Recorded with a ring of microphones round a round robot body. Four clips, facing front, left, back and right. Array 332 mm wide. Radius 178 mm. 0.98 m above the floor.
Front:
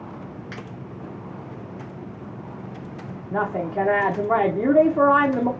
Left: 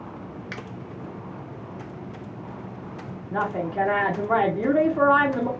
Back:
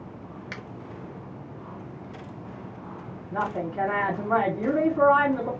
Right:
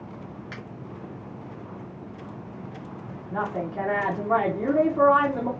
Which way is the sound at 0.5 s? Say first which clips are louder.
Left 5 dB, front 2 dB; 140° left.